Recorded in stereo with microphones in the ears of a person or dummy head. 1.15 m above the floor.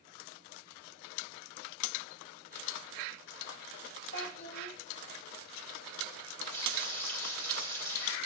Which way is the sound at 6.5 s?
10° left (ahead or behind).